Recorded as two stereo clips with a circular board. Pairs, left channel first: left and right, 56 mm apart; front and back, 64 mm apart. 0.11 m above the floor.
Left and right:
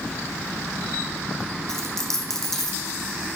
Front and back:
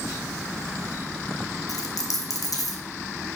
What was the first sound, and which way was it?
A dropped coin, 5° left.